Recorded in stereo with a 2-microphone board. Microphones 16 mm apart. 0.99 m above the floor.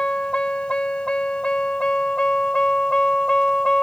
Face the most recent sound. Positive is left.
turn(degrees=60)  # may be behind; listen again after turning